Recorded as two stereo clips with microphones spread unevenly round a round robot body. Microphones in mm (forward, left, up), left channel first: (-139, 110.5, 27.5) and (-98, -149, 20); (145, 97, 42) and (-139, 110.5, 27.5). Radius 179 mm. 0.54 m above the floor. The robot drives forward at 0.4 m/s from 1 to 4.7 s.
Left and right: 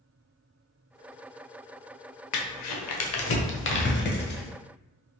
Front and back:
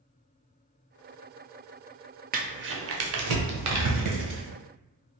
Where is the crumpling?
110° left, 0.5 m; by 4.5 s 155° left, 1.2 m.